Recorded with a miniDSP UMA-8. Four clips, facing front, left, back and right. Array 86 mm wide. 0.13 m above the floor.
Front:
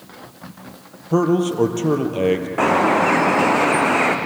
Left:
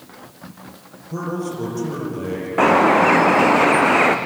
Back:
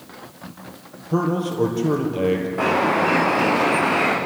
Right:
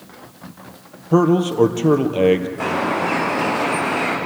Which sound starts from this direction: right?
A man speaking, at 1.1 s.